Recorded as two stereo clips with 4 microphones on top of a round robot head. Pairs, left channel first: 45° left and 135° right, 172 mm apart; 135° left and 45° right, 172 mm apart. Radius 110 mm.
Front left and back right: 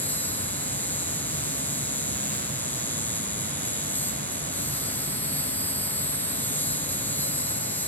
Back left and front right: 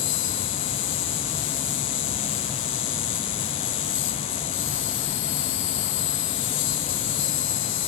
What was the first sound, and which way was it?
An insect, 125° left.